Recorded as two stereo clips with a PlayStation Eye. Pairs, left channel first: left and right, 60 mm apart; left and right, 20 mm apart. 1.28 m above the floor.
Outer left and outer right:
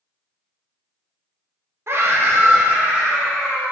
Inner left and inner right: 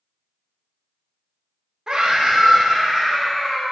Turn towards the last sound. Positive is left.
turn(degrees=-20)  # may be behind; listen again after turning